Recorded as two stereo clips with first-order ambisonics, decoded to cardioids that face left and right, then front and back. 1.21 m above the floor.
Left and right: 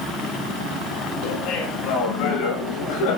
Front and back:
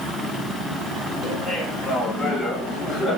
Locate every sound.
1.2 s laughter: 95° left, 6.5 m; by 3.2 s 90° left, 7 m